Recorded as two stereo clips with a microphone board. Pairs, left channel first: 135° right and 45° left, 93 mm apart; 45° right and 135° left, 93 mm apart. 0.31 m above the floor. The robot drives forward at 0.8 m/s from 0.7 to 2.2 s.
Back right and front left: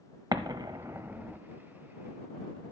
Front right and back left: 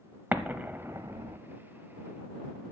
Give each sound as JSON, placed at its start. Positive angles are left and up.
{"t": 0.3, "sound": "an explosion", "azimuth_deg": 70, "distance_m": 0.7}